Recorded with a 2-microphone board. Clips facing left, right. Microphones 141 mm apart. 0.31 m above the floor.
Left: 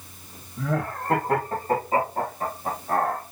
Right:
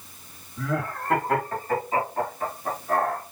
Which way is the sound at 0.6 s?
30° left (ahead or behind).